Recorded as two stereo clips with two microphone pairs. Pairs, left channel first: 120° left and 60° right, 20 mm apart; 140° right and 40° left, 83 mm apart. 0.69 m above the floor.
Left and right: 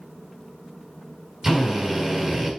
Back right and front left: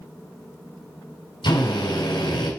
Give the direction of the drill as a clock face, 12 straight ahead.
4 o'clock.